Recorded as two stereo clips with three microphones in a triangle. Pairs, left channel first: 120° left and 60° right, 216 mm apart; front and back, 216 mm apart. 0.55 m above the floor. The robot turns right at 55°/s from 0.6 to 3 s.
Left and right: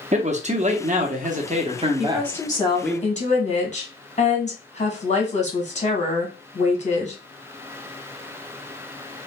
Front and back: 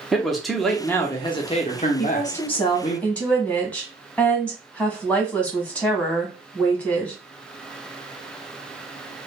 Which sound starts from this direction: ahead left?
A woman speaking, at 2.0 s.